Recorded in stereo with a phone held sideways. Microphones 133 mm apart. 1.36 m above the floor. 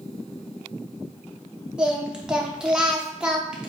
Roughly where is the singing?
Centre.